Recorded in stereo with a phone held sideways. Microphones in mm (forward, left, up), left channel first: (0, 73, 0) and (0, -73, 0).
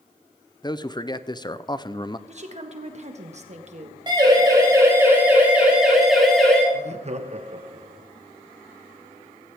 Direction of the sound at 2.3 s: 45° right (ahead or behind).